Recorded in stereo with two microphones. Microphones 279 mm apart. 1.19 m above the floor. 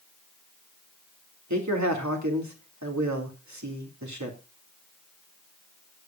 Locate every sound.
1.5 s a man speaking: 85° right, 2.5 m